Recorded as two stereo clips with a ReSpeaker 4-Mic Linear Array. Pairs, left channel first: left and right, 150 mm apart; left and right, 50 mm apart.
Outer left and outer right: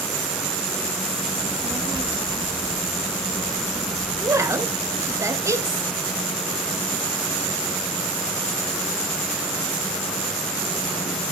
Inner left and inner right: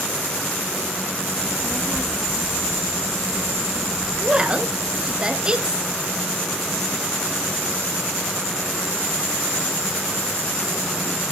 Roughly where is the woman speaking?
Right.